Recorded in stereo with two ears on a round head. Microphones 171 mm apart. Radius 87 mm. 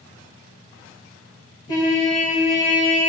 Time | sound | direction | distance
1.7 | a trumpet | 20° left (ahead or behind) | 1.3 m